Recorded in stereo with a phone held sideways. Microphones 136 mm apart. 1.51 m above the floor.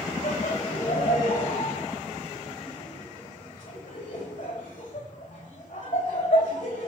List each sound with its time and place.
0.2 s laughter: 75° left (ahead or behind), 3.5 m